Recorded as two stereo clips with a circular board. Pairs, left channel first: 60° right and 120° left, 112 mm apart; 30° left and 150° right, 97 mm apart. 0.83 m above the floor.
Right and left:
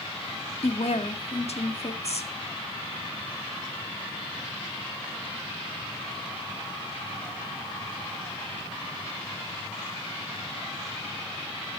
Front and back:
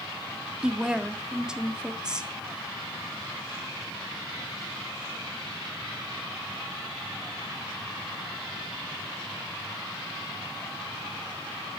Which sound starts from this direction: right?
A woman speaking, at 0.6 s.